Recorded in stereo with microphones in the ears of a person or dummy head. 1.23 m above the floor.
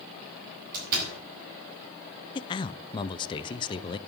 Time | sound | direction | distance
0.7 | a door slam | 45° right (ahead or behind) | 5 m
2.4 | a man speaking | 20° left (ahead or behind) | 0.5 m